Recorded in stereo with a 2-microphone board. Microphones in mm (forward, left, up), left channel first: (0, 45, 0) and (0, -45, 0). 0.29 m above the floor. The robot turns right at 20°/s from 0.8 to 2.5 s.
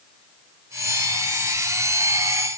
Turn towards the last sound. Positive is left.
No sound to turn to.